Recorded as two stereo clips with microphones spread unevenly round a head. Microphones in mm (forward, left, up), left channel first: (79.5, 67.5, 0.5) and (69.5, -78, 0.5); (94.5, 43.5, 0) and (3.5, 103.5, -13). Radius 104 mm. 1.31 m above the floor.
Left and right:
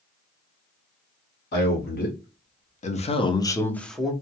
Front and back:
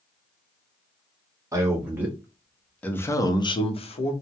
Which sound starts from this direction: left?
A man speaking, at 1.5 s.